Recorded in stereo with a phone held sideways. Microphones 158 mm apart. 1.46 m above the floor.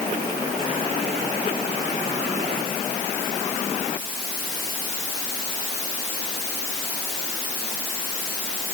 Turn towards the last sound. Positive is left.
No sound to turn to.